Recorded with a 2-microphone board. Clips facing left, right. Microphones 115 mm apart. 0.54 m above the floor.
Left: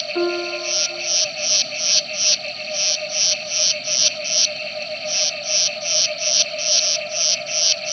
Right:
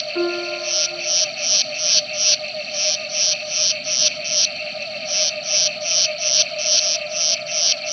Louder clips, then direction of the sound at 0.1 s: Left 1 dB; 10° left (ahead or behind).